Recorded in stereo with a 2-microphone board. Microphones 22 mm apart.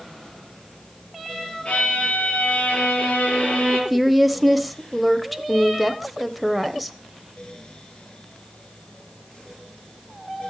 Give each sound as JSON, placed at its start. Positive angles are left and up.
{"t": 1.6, "sound": "a violin", "side_deg": 65, "distance_m": 5.5}
{"t": 3.9, "sound": "a woman speaking", "side_deg": 0, "distance_m": 0.9}